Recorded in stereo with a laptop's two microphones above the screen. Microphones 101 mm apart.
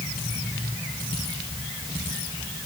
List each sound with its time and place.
Only background noise.